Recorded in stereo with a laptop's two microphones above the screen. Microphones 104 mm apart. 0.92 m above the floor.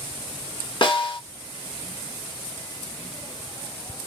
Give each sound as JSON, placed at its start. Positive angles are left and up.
{"t": 0.8, "sound": "a snare drum", "side_deg": 50, "distance_m": 1.3}